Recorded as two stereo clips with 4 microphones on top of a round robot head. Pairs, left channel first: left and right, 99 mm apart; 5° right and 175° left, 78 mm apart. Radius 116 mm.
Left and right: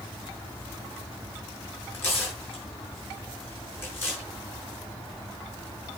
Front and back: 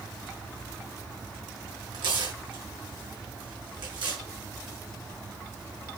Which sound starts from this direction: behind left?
Tearing paper, at 1.9 s.